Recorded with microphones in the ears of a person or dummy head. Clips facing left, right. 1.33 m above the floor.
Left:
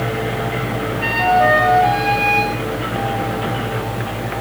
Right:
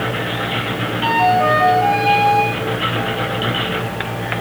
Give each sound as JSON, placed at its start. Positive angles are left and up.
{"t": 1.0, "sound": "a flute", "side_deg": 20, "distance_m": 7.0}